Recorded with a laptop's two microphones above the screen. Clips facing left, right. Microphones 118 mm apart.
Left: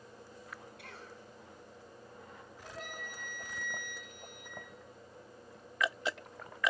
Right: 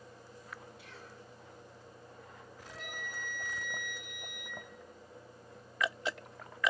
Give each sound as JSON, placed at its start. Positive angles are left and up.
{"t": 0.8, "sound": "a cough", "side_deg": 65, "distance_m": 9.0}
{"t": 2.6, "sound": "a flute", "side_deg": 45, "distance_m": 6.0}